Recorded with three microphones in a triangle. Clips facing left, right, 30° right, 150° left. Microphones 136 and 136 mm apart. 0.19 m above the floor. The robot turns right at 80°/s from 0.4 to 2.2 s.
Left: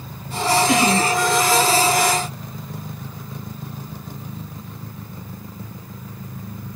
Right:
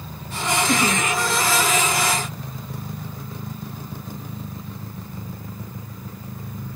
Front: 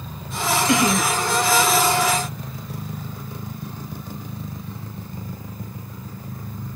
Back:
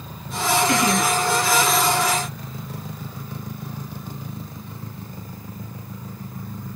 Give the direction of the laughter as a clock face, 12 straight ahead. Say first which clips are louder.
Left 4 dB, front 1 dB; 12 o'clock.